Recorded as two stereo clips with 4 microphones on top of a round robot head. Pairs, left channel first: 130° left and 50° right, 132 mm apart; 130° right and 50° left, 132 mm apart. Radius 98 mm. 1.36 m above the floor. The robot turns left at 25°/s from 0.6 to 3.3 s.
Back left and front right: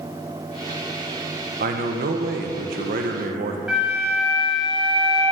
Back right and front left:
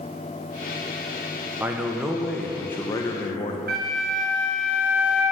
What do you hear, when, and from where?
1.6 s a man speaking: 30° right, 0.8 m; by 3.6 s 70° right, 0.8 m
3.7 s a flute: 35° left, 1.6 m